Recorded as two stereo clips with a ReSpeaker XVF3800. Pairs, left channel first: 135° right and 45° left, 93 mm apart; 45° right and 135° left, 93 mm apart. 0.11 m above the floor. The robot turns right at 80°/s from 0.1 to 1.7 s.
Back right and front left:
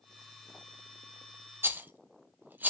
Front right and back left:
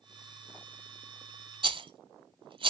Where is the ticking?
No ticking in this recording.